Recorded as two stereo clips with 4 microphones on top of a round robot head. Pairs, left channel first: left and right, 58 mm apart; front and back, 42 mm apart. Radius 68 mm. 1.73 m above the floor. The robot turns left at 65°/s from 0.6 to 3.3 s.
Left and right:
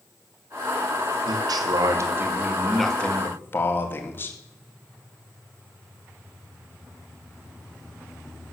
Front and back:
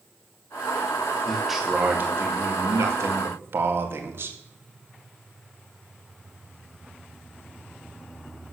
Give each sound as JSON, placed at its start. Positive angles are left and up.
{"t": 1.3, "sound": "a man speaking", "azimuth_deg": -80, "distance_m": 2.0}